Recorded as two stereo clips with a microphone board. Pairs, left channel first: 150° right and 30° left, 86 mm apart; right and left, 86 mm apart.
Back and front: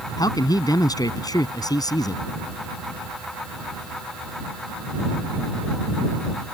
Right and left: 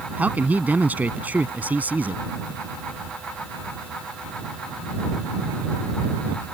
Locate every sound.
0.2 s a man speaking: 165° left